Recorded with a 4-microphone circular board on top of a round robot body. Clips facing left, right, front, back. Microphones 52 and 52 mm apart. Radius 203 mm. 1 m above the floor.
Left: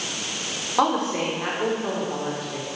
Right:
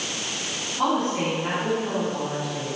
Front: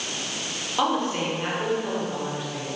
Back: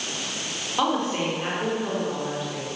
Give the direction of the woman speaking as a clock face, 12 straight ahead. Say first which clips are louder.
Left 2 dB, even; 9 o'clock.